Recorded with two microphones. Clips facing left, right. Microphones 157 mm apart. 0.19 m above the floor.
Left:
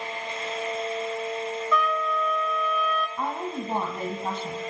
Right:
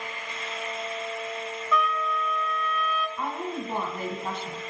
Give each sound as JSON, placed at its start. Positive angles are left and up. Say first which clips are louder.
{"t": 1.7, "sound": "a trumpet", "louder": "even", "side_deg": 0, "distance_m": 0.5}
{"t": 3.2, "sound": "a woman speaking", "louder": "left 1 dB", "side_deg": 30, "distance_m": 1.4}